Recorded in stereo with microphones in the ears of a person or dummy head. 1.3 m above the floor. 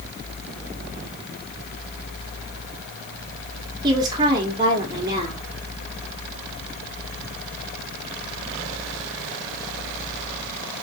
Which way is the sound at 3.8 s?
25° right (ahead or behind).